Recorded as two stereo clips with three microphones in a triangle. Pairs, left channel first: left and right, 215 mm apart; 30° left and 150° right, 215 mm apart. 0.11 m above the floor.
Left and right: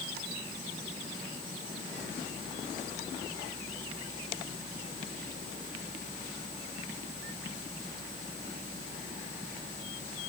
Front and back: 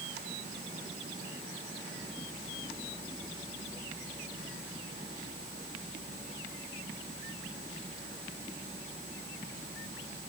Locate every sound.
Only background noise.